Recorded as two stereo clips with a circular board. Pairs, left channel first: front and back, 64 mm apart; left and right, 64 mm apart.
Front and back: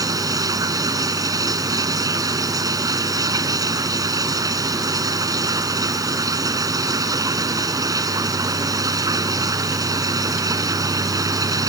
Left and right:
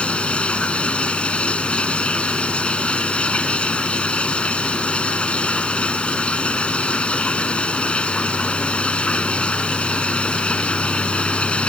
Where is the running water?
160° left.